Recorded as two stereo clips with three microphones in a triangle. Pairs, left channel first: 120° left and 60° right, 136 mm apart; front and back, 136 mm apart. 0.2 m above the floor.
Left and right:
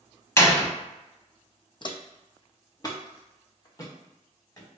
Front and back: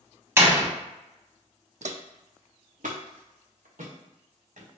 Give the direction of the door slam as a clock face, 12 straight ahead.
7 o'clock.